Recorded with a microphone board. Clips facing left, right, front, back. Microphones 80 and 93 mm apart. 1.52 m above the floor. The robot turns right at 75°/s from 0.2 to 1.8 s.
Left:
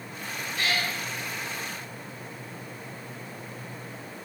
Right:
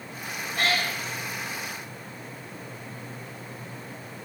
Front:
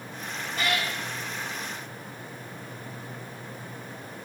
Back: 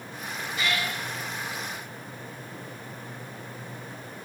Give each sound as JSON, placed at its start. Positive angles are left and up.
{"t": 0.6, "sound": "a cat meowing", "azimuth_deg": -45, "distance_m": 4.0}